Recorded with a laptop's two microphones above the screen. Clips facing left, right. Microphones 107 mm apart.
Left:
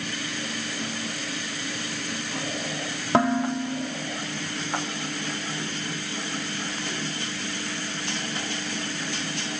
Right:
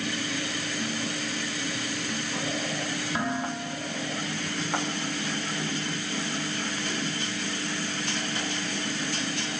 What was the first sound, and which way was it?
Dishes clattering, 75° left (ahead or behind).